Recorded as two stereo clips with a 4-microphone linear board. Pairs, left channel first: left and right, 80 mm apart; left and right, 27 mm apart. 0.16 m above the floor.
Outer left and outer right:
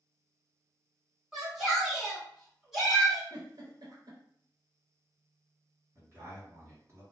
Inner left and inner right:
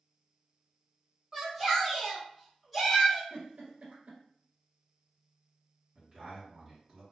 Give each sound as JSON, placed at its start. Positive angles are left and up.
{"t": 1.3, "sound": "a shout", "side_deg": -5, "distance_m": 1.5}
{"t": 3.3, "sound": "a giggle", "side_deg": -55, "distance_m": 1.1}
{"t": 6.0, "sound": "a man speaking", "side_deg": -35, "distance_m": 1.9}